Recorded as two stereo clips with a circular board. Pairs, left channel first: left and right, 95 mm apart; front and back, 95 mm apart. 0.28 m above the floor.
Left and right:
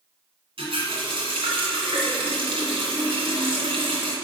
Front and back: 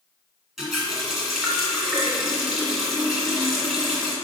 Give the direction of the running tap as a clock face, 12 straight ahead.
3 o'clock.